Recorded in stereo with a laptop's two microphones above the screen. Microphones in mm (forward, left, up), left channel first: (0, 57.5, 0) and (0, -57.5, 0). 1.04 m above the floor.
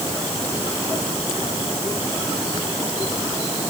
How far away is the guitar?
I don't hear a guitar.